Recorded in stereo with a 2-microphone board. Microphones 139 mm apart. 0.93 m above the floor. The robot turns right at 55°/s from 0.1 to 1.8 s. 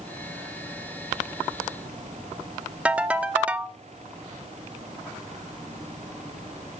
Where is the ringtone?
10° right (ahead or behind), 0.6 m.